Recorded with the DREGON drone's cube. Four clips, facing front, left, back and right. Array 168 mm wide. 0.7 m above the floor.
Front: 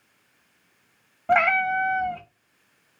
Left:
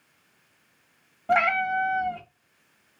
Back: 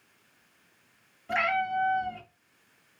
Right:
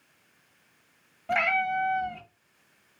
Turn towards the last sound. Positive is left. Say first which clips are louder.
# left 4 dB, front 7 dB
turn(degrees=20)